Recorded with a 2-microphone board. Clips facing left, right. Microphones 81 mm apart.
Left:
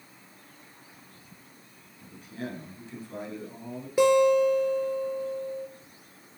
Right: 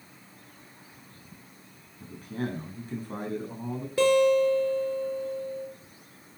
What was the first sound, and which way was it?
A man speaking, 45° right (ahead or behind).